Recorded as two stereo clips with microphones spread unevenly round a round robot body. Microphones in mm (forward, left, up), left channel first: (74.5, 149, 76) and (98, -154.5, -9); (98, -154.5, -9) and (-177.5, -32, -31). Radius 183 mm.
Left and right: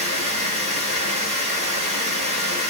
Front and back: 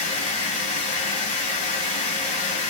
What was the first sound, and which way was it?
Running water, 25° right.